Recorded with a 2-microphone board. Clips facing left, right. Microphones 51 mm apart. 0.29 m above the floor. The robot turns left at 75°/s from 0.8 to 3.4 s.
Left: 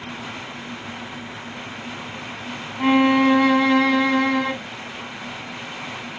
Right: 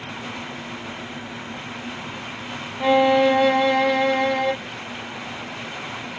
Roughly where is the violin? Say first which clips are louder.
Even; behind left.